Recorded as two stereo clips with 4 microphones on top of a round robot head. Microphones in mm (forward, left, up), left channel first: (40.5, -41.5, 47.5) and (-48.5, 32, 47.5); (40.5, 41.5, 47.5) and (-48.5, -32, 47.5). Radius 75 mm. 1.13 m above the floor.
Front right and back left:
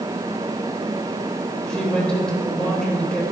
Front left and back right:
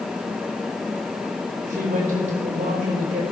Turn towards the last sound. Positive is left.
turn(degrees=-125)